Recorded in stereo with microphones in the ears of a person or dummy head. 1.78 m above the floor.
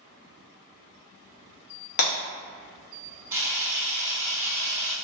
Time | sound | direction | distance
2.0 | breaking glass | 60° left (ahead or behind) | 1.6 m
3.3 | a camera shutter | 15° right (ahead or behind) | 1.1 m